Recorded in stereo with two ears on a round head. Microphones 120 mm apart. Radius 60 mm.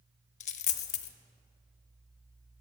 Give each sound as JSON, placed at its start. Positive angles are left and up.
{"t": 0.4, "sound": "a dropped coin", "side_deg": 55, "distance_m": 0.7}